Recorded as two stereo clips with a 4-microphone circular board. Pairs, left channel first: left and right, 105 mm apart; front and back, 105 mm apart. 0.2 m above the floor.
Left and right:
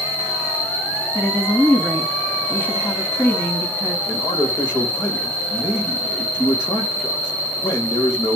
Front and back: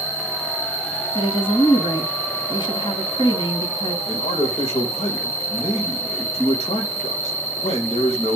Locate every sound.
0.0 s an insect: 20° left, 6 m
1.1 s a woman speaking: 25° left, 2 m
4.1 s a man speaking: 30° left, 6.5 m